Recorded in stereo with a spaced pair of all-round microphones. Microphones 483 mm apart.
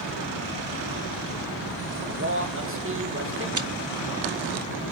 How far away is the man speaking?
About 1.6 m.